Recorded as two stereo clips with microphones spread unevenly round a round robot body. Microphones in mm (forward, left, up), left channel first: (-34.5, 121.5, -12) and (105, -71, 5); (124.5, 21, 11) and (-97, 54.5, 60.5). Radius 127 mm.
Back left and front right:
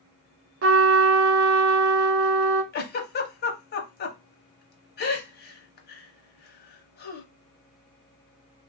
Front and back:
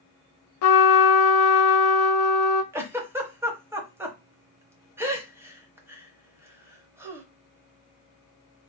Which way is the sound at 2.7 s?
85° left.